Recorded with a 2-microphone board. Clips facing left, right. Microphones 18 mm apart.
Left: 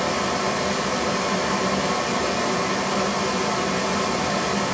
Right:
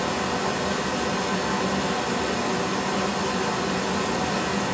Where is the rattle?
I don't hear a rattle.